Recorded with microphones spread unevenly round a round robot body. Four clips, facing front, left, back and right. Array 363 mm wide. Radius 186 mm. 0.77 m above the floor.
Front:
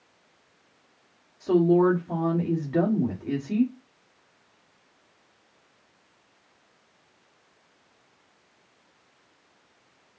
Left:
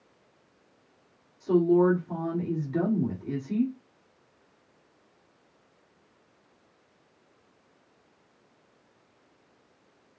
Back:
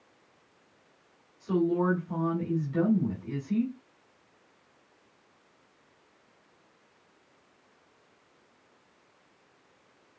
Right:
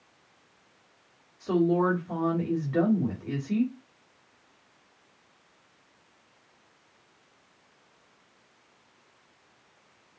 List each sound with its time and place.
1.4 s a woman speaking: 25° right, 2 m